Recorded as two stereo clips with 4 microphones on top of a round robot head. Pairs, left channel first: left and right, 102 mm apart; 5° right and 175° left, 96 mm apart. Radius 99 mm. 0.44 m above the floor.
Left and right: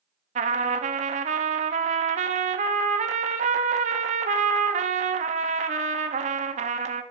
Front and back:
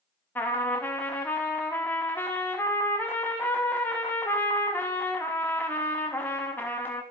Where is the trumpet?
80° right, 0.5 m.